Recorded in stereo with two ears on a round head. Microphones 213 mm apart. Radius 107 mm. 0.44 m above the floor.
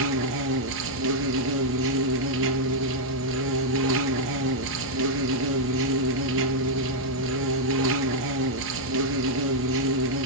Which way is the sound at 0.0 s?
60° right (ahead or behind).